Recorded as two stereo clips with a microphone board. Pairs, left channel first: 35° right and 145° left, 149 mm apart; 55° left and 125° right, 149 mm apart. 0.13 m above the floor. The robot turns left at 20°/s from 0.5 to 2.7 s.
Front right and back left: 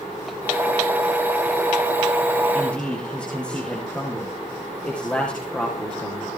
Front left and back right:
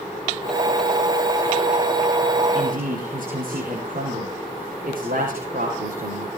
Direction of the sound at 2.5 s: 115° right.